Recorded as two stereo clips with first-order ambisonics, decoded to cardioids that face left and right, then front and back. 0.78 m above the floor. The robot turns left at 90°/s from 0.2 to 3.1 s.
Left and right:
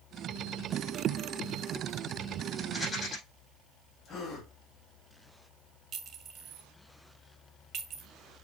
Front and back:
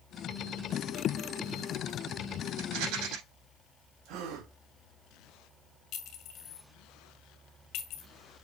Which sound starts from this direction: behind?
A rattle, at 2.6 s.